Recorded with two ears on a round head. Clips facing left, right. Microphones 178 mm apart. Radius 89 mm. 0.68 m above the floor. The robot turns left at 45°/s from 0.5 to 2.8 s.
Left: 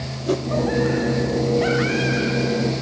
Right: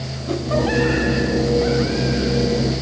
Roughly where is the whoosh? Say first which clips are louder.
Left 3 dB; left.